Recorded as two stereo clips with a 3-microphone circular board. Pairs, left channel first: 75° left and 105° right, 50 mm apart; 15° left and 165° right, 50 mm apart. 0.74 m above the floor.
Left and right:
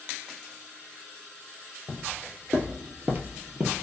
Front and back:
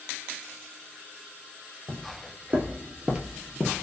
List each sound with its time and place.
1.9 s footsteps: 155° right, 1.2 m; by 3.8 s 75° right, 0.8 m